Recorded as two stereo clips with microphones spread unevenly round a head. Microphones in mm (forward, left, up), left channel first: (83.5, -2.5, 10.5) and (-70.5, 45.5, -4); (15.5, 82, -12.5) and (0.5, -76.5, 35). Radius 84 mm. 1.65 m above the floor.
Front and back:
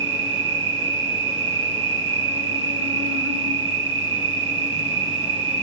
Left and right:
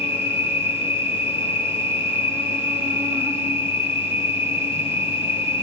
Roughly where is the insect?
Behind.